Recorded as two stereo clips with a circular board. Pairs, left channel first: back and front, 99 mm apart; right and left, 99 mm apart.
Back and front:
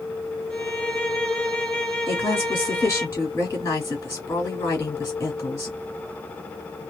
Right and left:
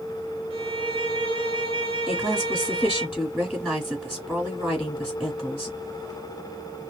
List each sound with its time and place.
0.5 s a violin: 100° left, 0.7 m
2.1 s a woman speaking: 150° left, 1.6 m